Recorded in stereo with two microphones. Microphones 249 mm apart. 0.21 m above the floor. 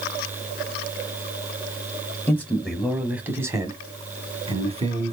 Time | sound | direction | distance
2.3 | a man speaking | 10° left (ahead or behind) | 1.5 m